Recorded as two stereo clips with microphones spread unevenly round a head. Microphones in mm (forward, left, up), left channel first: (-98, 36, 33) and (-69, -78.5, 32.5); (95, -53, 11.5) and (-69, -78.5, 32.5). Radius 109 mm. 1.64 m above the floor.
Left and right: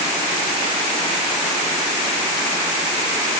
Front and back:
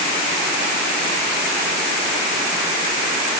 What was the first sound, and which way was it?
Only background noise.